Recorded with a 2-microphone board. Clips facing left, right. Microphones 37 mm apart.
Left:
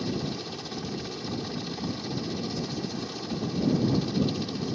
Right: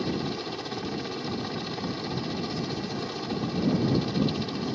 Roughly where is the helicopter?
Right.